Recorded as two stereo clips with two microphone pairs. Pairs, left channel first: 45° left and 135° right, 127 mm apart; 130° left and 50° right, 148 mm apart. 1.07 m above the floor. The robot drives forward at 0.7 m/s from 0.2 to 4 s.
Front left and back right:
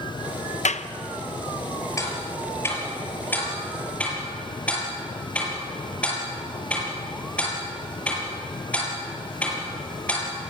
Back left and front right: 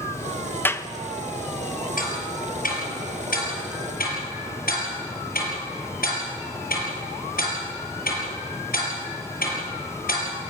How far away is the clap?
About 0.8 m.